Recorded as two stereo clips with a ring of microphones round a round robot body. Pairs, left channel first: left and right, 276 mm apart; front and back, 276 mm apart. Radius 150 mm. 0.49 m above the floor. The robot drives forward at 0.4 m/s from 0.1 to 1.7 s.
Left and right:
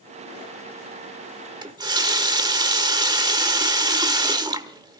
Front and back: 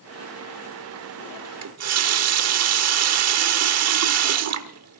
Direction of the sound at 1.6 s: 165° right.